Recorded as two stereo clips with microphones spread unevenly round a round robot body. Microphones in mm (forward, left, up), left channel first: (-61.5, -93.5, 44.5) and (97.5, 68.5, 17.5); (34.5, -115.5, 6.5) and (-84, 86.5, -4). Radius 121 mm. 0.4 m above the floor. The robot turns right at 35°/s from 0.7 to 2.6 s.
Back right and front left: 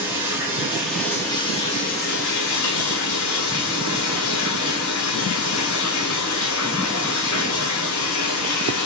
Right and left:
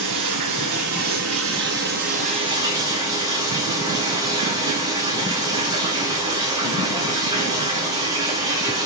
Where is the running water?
130° left, 5 m; by 8.9 s 165° right, 5 m.